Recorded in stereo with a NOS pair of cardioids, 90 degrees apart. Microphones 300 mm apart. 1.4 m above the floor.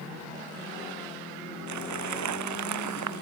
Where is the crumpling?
70° right.